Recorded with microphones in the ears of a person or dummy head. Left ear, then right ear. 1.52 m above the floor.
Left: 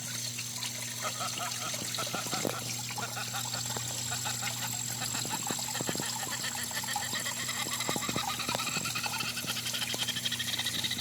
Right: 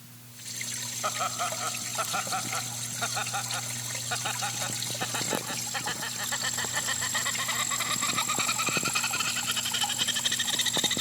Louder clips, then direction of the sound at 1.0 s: Right 6 dB; 35° right (ahead or behind).